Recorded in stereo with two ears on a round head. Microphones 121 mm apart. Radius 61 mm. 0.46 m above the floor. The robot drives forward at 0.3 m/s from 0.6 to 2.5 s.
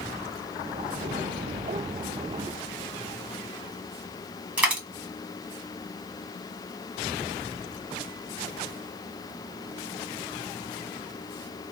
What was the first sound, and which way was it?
A dropped coin, 10° right (ahead or behind).